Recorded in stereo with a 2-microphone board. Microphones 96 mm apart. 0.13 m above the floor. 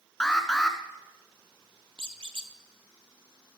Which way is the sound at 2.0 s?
70° right (ahead or behind).